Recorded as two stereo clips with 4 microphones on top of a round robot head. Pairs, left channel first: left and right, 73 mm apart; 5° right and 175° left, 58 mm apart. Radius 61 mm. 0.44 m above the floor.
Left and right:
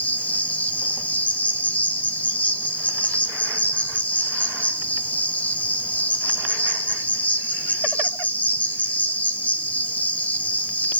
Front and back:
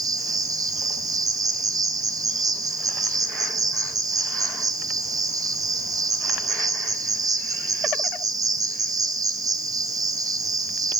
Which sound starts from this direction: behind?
An insect, at 0.0 s.